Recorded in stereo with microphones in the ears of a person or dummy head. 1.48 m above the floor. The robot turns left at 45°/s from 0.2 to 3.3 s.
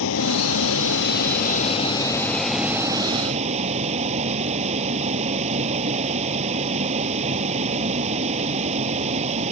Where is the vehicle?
105° left; by 9.5 s 35° right.